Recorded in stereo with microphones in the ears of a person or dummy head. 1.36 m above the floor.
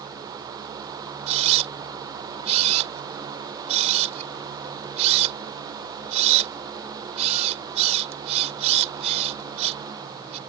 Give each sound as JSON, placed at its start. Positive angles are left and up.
{"t": 1.3, "sound": "a camera shutter", "side_deg": -40}